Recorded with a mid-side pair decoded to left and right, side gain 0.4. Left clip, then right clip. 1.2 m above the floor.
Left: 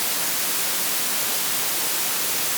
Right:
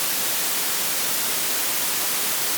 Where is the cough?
I don't hear a cough.